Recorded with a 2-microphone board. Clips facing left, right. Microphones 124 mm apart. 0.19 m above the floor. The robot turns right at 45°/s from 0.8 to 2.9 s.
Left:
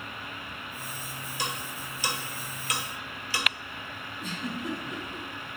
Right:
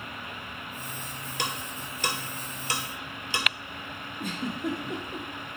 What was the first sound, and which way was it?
Ticking, 85° right.